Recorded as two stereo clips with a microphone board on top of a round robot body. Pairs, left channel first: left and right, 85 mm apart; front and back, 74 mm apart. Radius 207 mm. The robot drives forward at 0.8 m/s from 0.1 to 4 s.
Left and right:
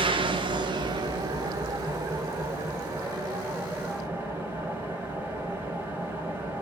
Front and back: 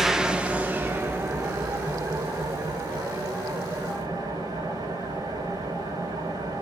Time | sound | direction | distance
0.0 | an engine running | 95° right | 1.3 m